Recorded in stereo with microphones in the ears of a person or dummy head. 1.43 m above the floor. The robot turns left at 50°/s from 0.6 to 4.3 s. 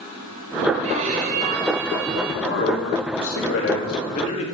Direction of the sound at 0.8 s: 50° right.